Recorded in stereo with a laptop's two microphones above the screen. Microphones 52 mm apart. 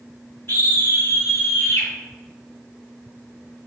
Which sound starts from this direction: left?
A scream, at 0.5 s.